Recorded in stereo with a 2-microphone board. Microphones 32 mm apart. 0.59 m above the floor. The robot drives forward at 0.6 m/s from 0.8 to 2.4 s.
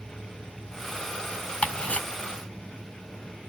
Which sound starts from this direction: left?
Ticking, at 1.6 s.